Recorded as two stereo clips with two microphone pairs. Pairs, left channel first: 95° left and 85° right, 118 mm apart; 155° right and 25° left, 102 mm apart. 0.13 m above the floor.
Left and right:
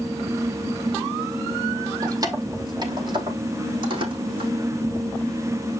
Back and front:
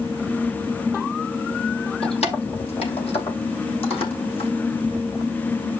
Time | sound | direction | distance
2.0 | keys jangling | 145° right | 3 m